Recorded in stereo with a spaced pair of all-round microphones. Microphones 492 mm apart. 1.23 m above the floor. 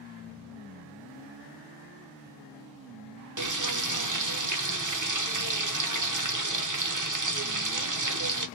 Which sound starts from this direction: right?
Frying, at 3.4 s.